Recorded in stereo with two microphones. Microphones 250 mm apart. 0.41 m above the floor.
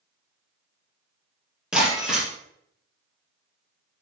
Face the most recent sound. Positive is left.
turn(degrees=-5)  # may be behind; listen again after turning